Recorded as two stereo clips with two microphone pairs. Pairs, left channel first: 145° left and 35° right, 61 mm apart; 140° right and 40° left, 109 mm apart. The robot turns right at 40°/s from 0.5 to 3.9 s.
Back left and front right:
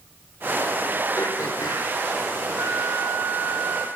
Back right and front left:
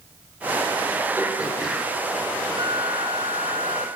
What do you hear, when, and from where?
1.2 s throat clearing: 110° left, 4 m; by 1.9 s 140° left, 4 m
2.6 s a flute: 10° right, 3 m; by 3.9 s 40° left, 3 m